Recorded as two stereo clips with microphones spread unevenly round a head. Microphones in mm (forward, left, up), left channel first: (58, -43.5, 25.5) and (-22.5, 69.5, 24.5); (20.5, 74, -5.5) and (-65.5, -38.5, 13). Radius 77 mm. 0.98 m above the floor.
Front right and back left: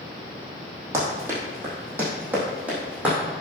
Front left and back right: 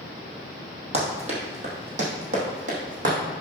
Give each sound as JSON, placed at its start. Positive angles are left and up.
{"t": 0.9, "sound": "running footsteps", "azimuth_deg": -160, "distance_m": 2.5}